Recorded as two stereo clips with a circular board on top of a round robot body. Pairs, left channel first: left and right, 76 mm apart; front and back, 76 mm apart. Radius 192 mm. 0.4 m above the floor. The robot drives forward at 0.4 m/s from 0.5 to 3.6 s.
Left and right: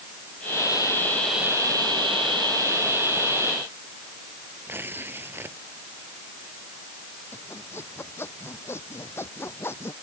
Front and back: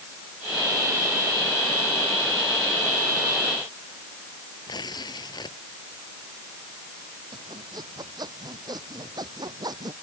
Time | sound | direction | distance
4.7 | tearing paper | 25° right | ?
7.3 | sawing | 150° left | ?